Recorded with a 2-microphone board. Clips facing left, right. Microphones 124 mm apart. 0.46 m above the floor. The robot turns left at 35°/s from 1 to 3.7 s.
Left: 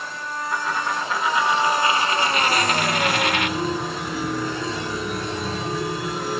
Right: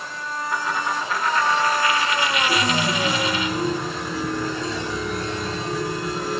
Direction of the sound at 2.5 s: 145° right.